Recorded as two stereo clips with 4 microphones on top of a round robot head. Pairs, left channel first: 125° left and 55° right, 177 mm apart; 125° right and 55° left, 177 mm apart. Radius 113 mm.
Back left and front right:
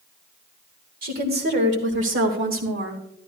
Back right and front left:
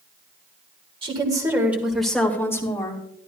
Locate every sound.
1.0 s a woman speaking: 10° right, 1.8 m; by 3.0 s 60° right, 2.5 m